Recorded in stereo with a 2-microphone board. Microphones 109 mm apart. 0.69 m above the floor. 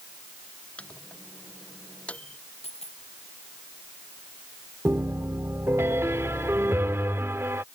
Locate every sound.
0.8 s a microwave: 10° left (ahead or behind)
2.6 s a dropped coin: 70° left (ahead or behind)
4.8 s a piano: 20° right (ahead or behind)